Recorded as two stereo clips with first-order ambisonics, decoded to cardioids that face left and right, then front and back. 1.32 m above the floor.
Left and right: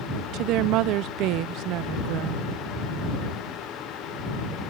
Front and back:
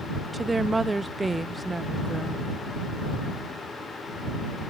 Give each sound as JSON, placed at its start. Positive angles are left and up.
{"t": 0.3, "sound": "a woman speaking", "azimuth_deg": -100}